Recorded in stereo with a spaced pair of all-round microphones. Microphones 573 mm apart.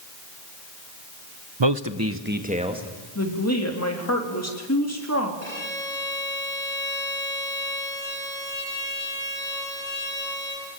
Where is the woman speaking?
25° left (ahead or behind), 3 m.